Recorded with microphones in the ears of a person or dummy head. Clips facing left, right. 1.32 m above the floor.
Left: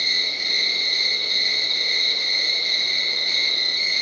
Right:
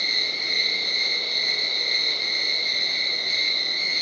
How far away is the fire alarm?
No fire alarm in this recording.